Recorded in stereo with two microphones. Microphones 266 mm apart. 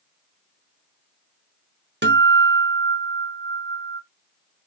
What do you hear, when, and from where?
2.0 s a guitar: 40° right (ahead or behind), 1.0 m